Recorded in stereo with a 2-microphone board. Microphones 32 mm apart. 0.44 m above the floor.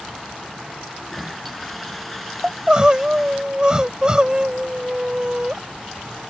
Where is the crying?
25° right (ahead or behind).